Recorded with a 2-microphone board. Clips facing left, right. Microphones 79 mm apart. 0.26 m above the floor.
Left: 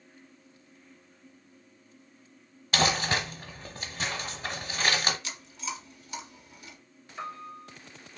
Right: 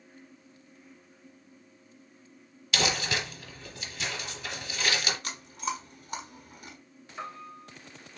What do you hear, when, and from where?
2.7 s crumpling: 45° left (ahead or behind), 1.0 m
5.2 s chewing: 55° right (ahead or behind), 1.1 m
7.2 s a piano: 5° right (ahead or behind), 2 m